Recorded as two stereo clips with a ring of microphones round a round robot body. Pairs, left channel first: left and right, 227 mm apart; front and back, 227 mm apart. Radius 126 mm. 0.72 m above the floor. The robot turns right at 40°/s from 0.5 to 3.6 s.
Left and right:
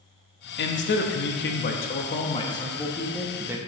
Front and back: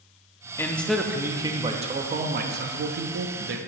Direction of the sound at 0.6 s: 75° left.